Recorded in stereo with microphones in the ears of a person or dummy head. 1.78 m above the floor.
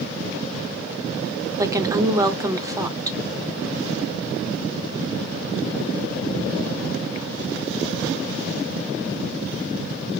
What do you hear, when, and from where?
1.6 s a woman speaking: 20° right (ahead or behind), 0.7 m